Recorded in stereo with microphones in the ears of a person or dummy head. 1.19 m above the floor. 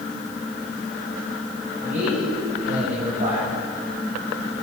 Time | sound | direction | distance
1.8 | a man speaking | 45° right (ahead or behind) | 7.5 m